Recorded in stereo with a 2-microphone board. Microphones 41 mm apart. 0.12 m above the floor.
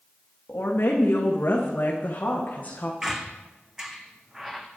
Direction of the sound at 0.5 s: 55° left (ahead or behind).